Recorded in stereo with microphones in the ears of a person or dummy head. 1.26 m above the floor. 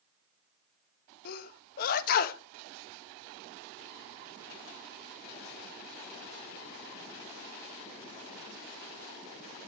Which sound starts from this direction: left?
A sneeze, at 1.2 s.